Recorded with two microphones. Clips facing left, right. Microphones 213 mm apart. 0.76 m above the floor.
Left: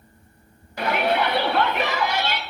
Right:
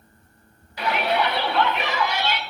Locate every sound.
0.8 s a shout: 50° left (ahead or behind), 1.6 m